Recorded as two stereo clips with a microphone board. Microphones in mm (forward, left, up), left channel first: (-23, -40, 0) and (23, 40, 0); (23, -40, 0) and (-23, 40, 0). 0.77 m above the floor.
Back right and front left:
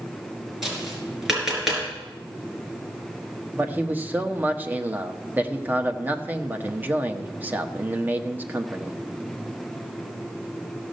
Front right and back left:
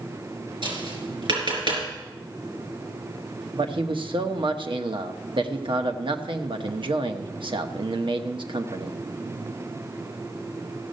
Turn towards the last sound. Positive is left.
turn(degrees=125)